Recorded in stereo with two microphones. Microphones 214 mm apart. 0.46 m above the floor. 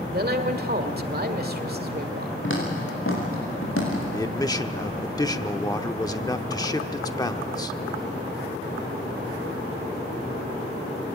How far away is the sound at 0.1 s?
About 1.7 m.